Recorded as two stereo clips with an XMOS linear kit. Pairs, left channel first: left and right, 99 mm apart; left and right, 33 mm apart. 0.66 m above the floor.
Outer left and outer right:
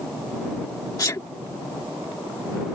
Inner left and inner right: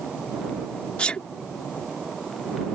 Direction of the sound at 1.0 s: 40° left (ahead or behind).